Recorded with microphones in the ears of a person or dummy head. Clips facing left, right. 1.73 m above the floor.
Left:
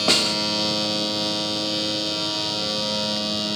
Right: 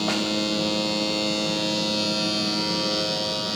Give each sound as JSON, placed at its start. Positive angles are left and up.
{"t": 0.1, "sound": "a snare drum", "side_deg": 60}